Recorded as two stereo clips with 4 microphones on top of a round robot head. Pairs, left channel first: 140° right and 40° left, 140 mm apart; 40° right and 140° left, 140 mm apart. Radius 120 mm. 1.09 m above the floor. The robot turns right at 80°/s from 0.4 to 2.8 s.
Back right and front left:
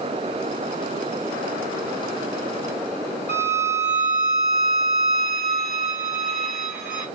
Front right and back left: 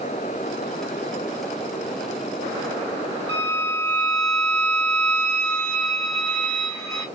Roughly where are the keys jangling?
No keys jangling in this recording.